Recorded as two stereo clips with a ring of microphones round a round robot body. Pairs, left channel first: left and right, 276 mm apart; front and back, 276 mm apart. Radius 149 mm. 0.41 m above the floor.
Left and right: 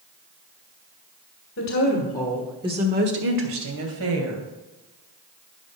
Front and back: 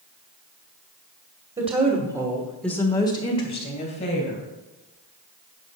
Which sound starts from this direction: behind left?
A woman speaking, at 1.6 s.